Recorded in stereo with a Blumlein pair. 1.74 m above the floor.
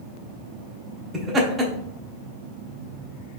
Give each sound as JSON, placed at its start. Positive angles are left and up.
{"t": 1.1, "sound": "laughter", "azimuth_deg": -15, "distance_m": 1.0}